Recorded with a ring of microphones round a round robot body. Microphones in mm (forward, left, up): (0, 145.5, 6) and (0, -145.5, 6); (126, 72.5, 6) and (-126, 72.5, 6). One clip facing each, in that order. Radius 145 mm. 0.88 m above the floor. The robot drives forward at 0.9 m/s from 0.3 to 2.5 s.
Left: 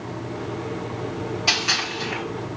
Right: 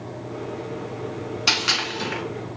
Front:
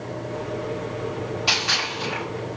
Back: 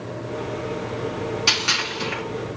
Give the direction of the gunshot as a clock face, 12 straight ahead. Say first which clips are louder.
Even, back 1 dB; 5 o'clock.